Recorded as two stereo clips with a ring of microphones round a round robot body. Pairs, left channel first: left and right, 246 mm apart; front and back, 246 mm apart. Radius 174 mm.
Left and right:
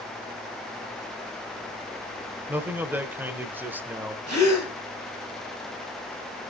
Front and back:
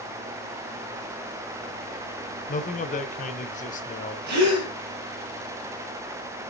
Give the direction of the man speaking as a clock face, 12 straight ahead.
12 o'clock.